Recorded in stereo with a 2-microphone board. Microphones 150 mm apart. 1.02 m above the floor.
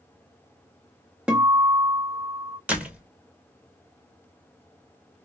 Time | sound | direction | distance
1.3 | a guitar | 5° right (ahead or behind) | 0.7 m
2.7 | a door slam | 10° right (ahead or behind) | 0.7 m